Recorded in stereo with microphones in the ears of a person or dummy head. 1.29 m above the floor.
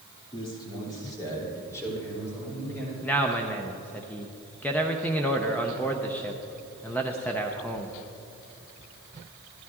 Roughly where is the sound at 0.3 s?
Left.